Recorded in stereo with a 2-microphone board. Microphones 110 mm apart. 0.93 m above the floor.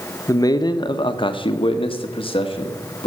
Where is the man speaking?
30° left (ahead or behind), 0.9 m; by 3.1 s 55° left (ahead or behind), 1.7 m.